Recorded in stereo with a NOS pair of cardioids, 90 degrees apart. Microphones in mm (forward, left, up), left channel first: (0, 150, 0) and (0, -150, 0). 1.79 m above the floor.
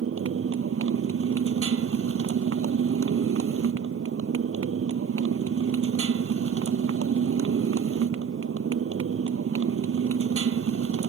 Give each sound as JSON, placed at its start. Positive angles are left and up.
{"t": 0.0, "sound": "a motorcycle", "azimuth_deg": -45}